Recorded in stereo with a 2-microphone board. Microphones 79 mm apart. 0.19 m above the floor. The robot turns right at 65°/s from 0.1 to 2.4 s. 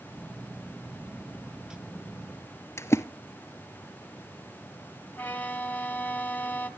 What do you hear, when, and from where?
2.8 s a splash: 35° left (ahead or behind), 0.6 m
5.2 s a violin: 20° left (ahead or behind), 1.3 m